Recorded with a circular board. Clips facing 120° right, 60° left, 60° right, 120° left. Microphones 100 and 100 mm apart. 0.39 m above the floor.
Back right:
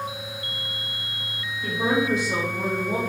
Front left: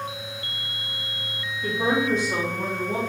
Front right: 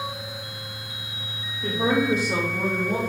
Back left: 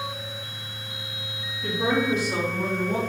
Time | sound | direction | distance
1.6 | a woman speaking | 30° right | 2 m